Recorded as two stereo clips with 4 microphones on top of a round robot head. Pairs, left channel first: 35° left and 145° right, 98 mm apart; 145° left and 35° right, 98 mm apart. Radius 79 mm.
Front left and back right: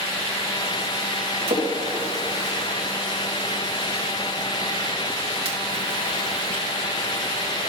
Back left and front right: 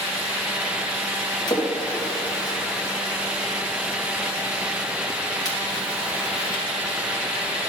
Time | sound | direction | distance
1.5 | a splash | 170° right | 1.7 m